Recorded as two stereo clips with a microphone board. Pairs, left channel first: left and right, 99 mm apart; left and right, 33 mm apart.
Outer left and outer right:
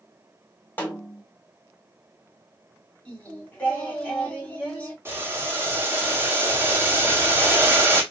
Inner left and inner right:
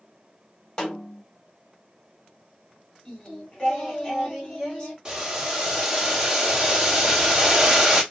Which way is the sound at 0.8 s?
20° left (ahead or behind).